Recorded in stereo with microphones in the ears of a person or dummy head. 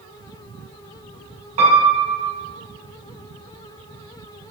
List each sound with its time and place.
1.6 s a piano: 30° right (ahead or behind), 3.5 m